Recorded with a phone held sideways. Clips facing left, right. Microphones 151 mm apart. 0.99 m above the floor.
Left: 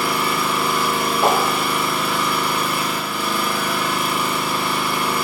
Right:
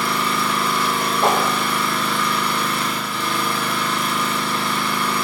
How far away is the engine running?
About 3.5 m.